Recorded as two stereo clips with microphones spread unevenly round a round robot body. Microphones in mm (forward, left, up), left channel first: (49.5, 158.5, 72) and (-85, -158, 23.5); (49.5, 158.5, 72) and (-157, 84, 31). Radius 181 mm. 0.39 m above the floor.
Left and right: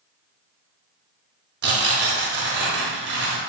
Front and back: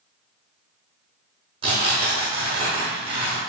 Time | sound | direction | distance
1.6 | tearing paper | 130° right | 0.8 m